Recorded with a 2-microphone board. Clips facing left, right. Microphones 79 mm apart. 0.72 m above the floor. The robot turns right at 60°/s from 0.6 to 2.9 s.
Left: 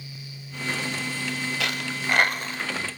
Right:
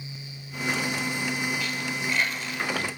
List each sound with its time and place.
1.6 s a dropped coin: 85° left, 1.0 m; by 2.9 s 15° left (ahead or behind), 1.0 m